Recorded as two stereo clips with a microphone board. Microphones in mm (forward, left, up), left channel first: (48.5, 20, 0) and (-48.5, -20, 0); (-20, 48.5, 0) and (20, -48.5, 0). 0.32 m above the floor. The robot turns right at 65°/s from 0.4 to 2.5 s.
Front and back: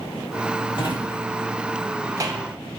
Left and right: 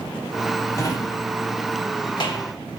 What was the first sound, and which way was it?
A drawer, 55° left.